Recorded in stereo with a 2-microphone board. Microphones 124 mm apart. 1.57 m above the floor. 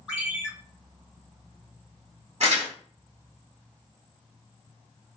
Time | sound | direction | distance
0.1 | a ringtone | 10° right (ahead or behind) | 1.8 m
2.4 | crumpling | 55° right (ahead or behind) | 1.5 m